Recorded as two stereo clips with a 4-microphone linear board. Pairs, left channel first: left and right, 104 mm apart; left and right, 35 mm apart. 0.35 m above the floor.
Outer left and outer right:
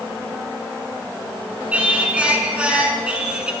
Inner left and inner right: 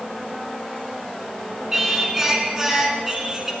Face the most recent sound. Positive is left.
turn(degrees=-10)  # may be behind; listen again after turning